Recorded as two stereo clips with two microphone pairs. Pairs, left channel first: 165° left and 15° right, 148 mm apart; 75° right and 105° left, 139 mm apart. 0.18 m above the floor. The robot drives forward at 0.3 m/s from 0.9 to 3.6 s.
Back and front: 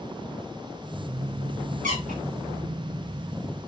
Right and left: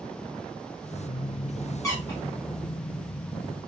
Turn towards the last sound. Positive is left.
turn(degrees=-10)